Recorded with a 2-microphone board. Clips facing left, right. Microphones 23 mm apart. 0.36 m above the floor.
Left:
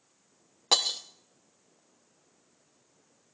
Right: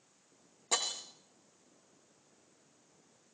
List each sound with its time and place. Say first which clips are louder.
0.7 s breaking glass: left 9 dB; 55° left (ahead or behind), 2 m